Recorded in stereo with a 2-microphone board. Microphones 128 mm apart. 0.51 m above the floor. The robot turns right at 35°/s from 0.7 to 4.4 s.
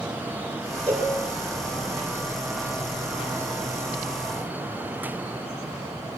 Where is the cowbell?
10° left (ahead or behind), 7 m; by 1.1 s 5° left (ahead or behind), 7 m.